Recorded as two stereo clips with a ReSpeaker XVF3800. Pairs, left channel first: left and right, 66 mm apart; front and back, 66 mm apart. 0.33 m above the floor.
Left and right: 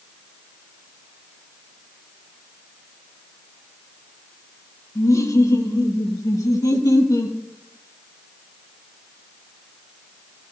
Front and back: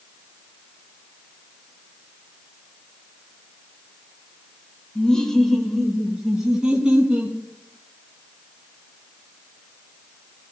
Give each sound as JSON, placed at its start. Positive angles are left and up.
{"t": 5.0, "sound": "laughter", "azimuth_deg": 75, "distance_m": 1.6}